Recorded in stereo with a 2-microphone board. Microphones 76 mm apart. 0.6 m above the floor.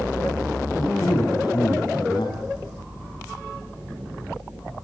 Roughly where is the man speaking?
Left.